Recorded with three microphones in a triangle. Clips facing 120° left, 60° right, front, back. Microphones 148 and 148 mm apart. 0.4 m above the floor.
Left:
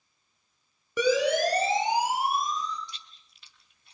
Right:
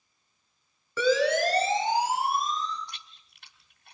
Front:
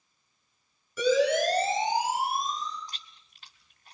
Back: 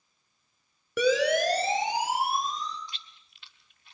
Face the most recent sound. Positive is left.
turn(degrees=-40)